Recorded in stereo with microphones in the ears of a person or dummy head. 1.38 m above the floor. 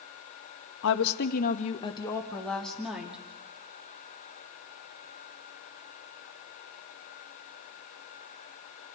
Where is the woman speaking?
70° left (ahead or behind), 2 m; by 3.2 s 5° right (ahead or behind), 3.5 m.